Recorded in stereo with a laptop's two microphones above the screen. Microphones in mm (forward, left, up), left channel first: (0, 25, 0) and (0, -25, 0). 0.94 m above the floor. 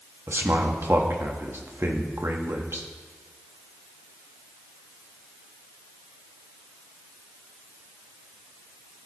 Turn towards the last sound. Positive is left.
turn(degrees=-55)  # may be behind; listen again after turning